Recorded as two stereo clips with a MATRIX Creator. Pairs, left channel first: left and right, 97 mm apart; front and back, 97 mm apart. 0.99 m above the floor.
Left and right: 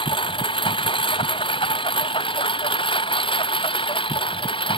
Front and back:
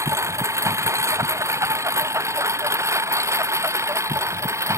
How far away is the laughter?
No laughter in this recording.